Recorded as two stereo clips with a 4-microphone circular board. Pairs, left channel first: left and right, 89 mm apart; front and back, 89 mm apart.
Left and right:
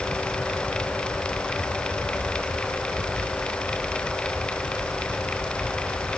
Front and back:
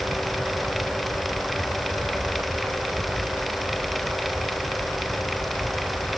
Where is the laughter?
I don't hear laughter.